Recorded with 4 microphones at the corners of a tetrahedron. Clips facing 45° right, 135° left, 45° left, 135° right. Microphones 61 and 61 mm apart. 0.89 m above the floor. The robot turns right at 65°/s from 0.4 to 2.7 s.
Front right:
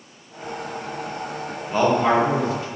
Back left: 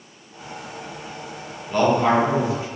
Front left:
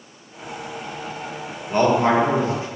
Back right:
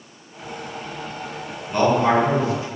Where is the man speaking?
15° left, 0.9 m; by 2.7 s 80° left, 0.9 m.